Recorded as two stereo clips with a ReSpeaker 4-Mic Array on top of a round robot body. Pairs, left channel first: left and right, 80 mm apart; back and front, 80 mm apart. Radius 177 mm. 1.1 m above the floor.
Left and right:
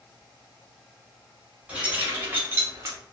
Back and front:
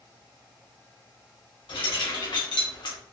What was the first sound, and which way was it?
Keys jangling, 165° right.